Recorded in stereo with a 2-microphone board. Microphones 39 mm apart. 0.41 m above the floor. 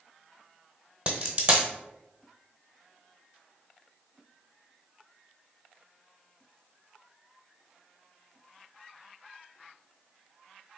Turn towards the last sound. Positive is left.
turn(degrees=-35)  # may be behind; listen again after turning